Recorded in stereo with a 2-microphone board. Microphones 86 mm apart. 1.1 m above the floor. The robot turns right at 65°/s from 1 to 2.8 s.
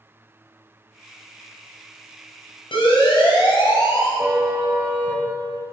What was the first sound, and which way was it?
A siren, 80° left.